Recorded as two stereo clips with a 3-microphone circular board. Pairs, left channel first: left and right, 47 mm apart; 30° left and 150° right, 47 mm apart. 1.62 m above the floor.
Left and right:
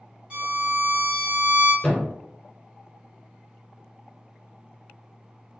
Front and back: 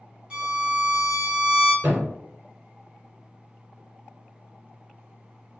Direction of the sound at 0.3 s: 110° right.